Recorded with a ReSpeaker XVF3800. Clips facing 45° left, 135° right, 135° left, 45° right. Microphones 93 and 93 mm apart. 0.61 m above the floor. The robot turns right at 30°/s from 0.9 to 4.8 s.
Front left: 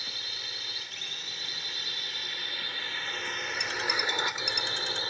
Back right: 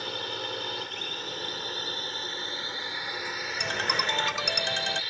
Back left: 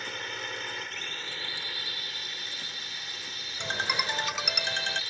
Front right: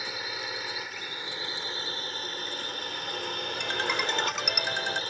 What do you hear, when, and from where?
0.0 s a drone: 125° right; by 5.1 s 10° right
3.6 s a ringtone: 160° right; by 5.0 s 125° right